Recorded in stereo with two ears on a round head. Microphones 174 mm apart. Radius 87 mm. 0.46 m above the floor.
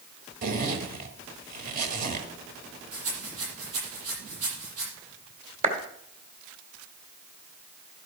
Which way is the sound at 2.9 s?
80° right.